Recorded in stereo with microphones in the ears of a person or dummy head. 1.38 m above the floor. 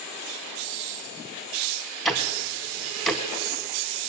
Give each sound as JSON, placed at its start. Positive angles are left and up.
{"t": 2.0, "sound": "ticking", "side_deg": 0, "distance_m": 1.1}